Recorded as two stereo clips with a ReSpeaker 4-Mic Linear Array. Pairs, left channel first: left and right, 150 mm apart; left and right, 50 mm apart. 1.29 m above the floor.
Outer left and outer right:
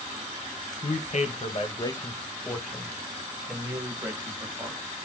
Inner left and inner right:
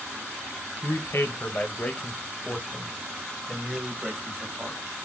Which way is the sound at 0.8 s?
60° left (ahead or behind).